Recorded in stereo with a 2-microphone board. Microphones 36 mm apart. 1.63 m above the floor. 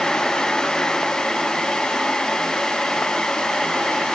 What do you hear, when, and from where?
Only background noise.